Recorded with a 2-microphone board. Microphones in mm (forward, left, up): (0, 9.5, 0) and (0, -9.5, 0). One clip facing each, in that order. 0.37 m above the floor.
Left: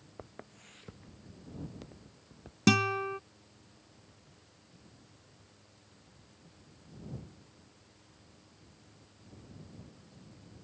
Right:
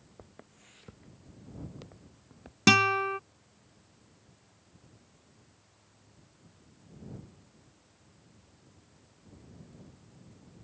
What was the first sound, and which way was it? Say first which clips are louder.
Footsteps: left 5 dB; 30° left (ahead or behind).